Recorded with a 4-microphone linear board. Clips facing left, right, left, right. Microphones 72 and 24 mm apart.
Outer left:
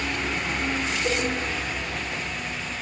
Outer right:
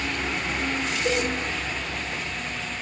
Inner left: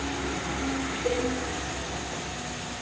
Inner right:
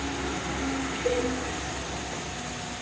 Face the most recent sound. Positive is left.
turn(degrees=-5)  # may be behind; listen again after turning